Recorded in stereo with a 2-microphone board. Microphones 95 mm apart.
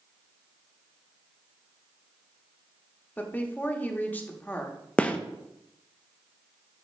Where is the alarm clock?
No alarm clock in this recording.